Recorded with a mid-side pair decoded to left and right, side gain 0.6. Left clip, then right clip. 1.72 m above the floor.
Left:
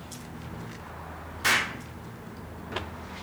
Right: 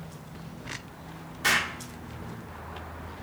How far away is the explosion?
About 0.5 m.